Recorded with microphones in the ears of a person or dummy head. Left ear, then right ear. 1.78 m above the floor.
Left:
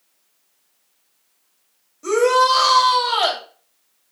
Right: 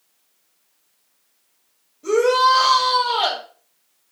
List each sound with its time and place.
2.0 s a shout: 45° left (ahead or behind), 3.5 m